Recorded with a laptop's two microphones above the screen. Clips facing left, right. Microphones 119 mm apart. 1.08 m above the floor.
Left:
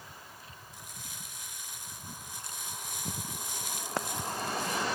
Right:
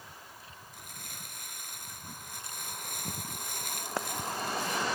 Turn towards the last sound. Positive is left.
turn(degrees=-60)  # may be behind; listen again after turning